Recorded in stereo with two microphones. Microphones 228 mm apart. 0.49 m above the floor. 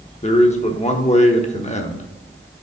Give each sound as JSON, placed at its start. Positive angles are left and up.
{"t": 0.2, "sound": "a man speaking", "side_deg": 30, "distance_m": 0.8}